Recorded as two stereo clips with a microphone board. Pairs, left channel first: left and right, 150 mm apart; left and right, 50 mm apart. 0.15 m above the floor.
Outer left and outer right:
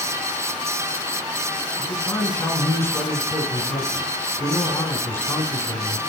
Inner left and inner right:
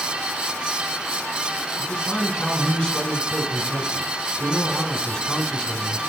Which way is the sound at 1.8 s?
20° left (ahead or behind).